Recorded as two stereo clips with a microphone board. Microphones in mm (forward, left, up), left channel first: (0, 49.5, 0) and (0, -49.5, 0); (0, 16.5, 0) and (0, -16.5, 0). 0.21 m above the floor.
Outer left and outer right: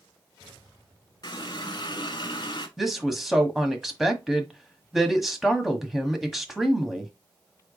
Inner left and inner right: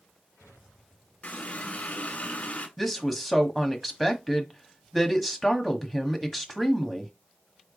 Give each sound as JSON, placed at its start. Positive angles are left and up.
{"t": 1.2, "sound": "a running tap", "side_deg": 50, "distance_m": 1.4}
{"t": 2.8, "sound": "a woman speaking", "side_deg": 0, "distance_m": 1.1}